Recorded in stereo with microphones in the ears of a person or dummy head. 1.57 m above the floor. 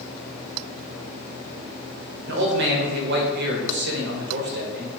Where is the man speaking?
60° right (ahead or behind), 0.9 m.